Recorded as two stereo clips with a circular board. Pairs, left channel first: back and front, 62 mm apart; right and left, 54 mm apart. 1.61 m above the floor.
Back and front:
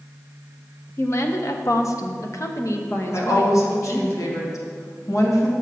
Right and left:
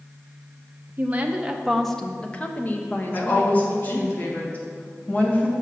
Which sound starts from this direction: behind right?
A woman speaking, at 3.1 s.